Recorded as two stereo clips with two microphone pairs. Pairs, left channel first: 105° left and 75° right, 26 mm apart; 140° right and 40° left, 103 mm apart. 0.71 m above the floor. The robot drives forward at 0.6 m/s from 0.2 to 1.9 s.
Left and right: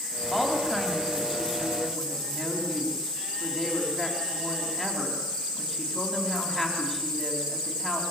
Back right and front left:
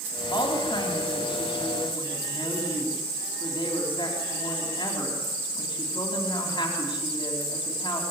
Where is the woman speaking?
175° right, 3.5 m.